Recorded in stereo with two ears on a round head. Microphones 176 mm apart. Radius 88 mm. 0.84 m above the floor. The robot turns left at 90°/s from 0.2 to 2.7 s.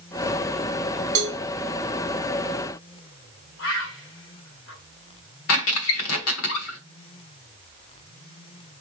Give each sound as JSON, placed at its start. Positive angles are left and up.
{"t": 1.1, "sound": "a cowbell", "side_deg": -80, "distance_m": 1.3}
{"t": 3.6, "sound": "a bird", "side_deg": 65, "distance_m": 1.9}
{"t": 5.5, "sound": "a squeak", "side_deg": 85, "distance_m": 1.3}